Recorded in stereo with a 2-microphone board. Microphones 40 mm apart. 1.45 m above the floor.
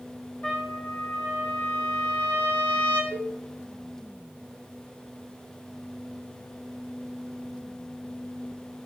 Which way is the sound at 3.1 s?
50° left (ahead or behind).